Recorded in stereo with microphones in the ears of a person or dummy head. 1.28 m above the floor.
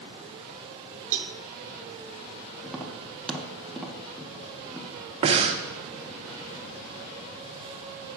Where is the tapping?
5° left (ahead or behind), 0.6 m.